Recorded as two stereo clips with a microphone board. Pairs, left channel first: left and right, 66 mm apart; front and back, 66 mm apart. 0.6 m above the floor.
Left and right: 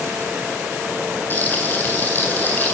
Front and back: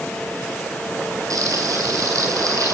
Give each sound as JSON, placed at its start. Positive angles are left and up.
{"t": 1.3, "sound": "frying", "azimuth_deg": 150, "distance_m": 9.5}